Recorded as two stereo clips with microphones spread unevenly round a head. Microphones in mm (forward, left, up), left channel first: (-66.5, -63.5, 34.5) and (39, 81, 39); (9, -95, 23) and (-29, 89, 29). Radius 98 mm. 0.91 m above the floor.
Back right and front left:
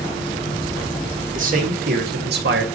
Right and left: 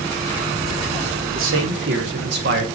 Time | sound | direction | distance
1.3 | a man speaking | 95° left | 2.5 m